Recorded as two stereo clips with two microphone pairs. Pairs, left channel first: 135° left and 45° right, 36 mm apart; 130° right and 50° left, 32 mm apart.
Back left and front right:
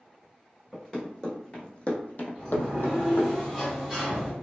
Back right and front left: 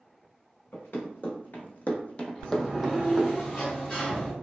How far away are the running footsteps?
About 1.2 m.